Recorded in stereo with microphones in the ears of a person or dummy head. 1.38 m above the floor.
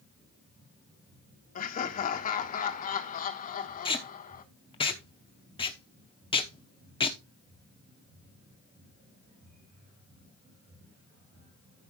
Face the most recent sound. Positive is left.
turn(degrees=25)  # may be behind; listen again after turning